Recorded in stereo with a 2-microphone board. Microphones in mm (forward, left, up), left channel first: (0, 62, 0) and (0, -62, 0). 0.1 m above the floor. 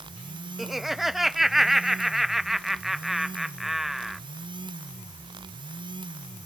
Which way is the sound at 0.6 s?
Centre (ahead or behind).